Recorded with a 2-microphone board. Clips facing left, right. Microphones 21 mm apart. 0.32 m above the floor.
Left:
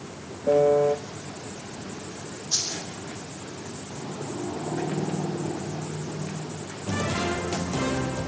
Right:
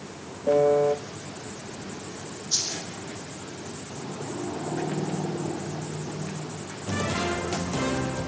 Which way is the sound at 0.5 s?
5° right (ahead or behind).